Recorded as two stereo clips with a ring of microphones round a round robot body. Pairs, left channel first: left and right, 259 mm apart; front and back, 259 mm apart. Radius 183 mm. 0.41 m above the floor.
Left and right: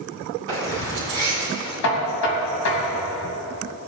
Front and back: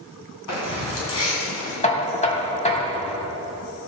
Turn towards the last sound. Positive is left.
turn(degrees=65)